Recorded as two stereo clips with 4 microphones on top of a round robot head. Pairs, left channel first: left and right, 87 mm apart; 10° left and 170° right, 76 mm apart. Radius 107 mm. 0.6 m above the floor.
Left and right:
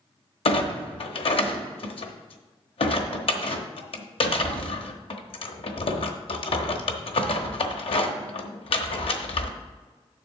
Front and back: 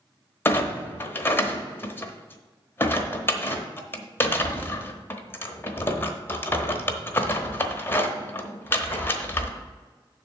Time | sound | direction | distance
0.5 | a clunk | 70° left | 1.0 m